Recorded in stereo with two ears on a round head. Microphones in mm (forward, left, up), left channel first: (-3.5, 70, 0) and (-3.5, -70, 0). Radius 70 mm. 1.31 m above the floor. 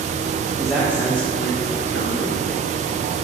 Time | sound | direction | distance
0.6 | a man speaking | 5° right (ahead or behind) | 1.3 m